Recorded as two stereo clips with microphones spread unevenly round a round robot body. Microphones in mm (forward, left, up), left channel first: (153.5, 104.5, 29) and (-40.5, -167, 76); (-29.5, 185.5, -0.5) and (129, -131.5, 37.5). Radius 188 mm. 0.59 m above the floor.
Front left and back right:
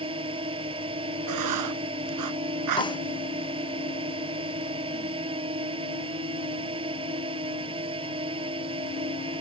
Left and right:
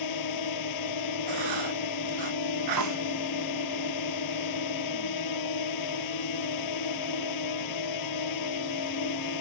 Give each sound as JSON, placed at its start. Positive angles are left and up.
{"t": 0.0, "sound": "a drone", "azimuth_deg": 160}
{"t": 1.3, "sound": "writing", "azimuth_deg": -100}
{"t": 2.8, "sound": "a snare drum", "azimuth_deg": -20}